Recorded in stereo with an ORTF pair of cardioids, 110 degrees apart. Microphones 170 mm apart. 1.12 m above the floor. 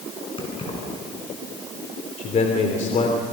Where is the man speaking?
45° left, 3 m.